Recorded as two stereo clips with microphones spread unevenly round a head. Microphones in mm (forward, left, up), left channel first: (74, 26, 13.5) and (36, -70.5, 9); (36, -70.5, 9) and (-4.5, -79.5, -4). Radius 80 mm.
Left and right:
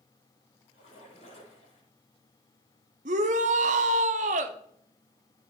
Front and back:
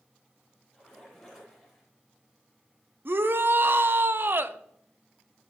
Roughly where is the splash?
Left.